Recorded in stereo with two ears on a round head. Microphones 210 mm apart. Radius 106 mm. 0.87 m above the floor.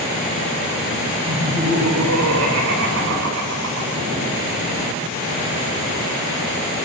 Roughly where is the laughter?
Right.